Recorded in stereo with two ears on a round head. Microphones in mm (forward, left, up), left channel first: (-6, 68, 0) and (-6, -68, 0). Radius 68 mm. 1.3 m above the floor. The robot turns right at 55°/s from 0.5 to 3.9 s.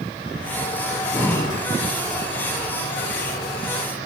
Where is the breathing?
5° right, 0.9 m; by 1.6 s 40° left, 0.9 m.